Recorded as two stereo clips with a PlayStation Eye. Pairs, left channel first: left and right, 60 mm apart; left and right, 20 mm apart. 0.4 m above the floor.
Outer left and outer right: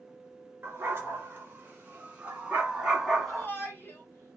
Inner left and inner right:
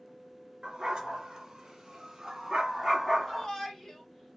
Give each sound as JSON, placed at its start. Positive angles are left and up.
{"t": 0.6, "sound": "a dog barking", "side_deg": -40, "distance_m": 2.5}
{"t": 3.3, "sound": "a shout", "side_deg": 35, "distance_m": 2.5}